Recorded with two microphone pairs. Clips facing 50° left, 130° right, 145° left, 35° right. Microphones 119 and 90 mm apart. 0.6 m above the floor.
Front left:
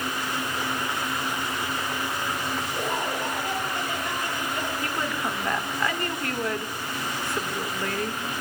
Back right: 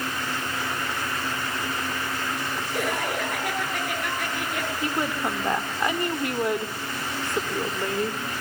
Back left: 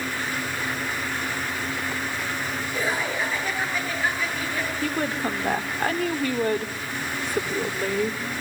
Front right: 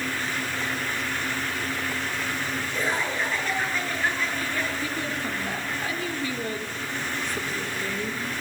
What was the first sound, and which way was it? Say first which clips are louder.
Laughter: back right 4 dB, back left 1 dB; 130° right.